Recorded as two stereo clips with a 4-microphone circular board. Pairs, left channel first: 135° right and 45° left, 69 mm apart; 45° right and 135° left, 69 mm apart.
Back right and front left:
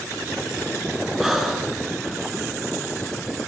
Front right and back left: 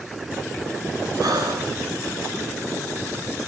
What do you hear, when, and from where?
1.2 s breathing: 130° left, 5.5 m